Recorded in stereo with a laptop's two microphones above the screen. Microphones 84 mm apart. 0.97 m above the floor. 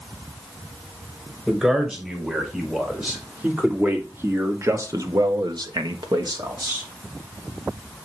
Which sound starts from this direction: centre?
A man speaking, at 1.5 s.